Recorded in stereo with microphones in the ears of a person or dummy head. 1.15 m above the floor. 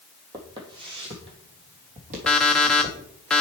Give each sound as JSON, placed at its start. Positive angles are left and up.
{"t": 0.3, "sound": "footsteps", "side_deg": -20, "distance_m": 2.5}
{"t": 2.3, "sound": "an alarm clock", "side_deg": 5, "distance_m": 0.9}